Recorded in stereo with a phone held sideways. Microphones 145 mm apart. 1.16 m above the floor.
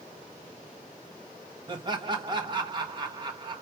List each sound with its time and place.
1.7 s laughter: 30° right (ahead or behind), 1.4 m